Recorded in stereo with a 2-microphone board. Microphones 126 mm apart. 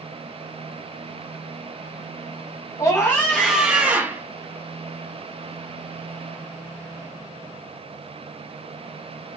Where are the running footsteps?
I don't hear running footsteps.